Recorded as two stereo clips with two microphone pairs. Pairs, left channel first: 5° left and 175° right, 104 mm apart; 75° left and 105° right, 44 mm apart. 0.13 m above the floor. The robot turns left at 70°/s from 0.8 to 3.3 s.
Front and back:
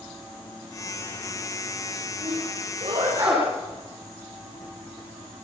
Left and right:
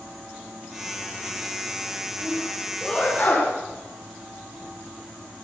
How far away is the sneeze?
About 9.5 m.